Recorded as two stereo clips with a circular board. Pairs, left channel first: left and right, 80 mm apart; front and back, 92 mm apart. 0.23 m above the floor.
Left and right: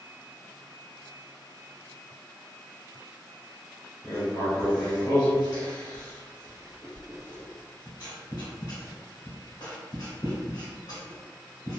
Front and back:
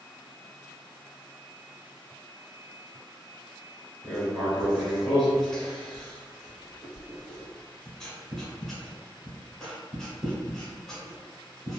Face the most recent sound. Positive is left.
turn(degrees=85)